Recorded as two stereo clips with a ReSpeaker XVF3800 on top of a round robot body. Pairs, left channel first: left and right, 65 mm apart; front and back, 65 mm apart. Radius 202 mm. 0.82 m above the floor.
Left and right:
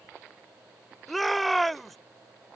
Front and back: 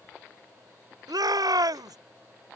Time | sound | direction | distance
1.1 | a shout | straight behind | ?